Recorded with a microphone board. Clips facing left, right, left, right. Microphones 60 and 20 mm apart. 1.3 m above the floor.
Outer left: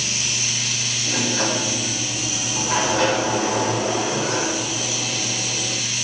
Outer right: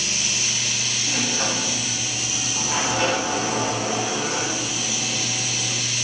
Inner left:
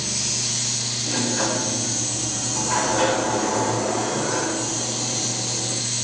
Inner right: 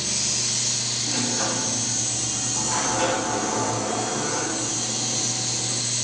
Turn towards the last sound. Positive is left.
turn(degrees=70)  # may be behind; listen again after turning